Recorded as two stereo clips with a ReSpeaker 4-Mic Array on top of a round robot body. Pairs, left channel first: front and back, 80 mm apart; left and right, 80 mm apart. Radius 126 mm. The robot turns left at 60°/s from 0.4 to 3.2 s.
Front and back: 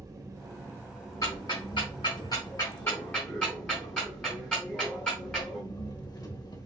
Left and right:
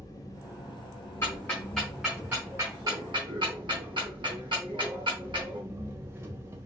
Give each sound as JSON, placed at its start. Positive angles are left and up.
{"t": 0.0, "sound": "an engine running", "azimuth_deg": 135, "distance_m": 1.3}
{"t": 1.2, "sound": "ticking", "azimuth_deg": 45, "distance_m": 0.8}